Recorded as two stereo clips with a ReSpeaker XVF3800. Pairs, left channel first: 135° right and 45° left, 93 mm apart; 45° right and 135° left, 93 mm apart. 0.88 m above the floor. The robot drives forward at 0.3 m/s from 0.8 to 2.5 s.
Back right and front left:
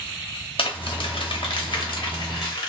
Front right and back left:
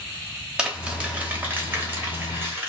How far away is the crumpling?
About 0.7 m.